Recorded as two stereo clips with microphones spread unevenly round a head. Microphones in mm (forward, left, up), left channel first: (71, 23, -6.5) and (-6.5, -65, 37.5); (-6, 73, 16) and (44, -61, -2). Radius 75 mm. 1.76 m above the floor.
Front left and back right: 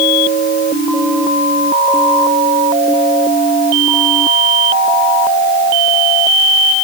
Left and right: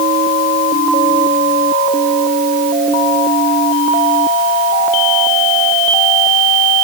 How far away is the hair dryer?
No hair dryer in this recording.